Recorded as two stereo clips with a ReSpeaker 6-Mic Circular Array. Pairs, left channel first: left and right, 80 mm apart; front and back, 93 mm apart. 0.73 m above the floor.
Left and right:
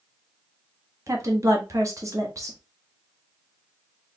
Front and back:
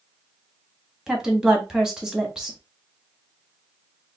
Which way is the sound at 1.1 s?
100° right.